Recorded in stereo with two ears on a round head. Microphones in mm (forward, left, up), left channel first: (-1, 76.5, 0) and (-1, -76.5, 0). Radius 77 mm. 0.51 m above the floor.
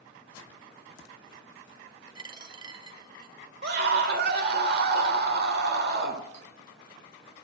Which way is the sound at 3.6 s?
60° right (ahead or behind).